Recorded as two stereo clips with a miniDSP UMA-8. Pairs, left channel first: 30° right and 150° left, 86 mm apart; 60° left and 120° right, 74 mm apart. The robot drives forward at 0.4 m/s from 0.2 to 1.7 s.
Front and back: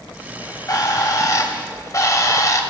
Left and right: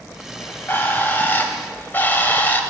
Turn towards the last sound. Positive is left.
turn(degrees=5)